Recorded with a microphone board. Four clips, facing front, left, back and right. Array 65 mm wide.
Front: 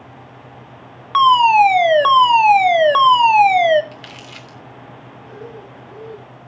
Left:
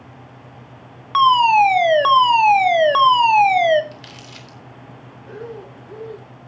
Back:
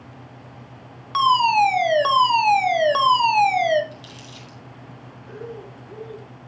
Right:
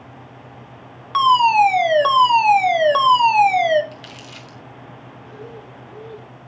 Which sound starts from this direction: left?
Breathing, at 5.3 s.